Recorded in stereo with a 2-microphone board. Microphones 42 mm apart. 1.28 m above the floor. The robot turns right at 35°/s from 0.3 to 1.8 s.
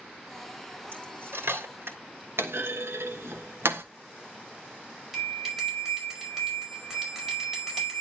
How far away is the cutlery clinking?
About 3 m.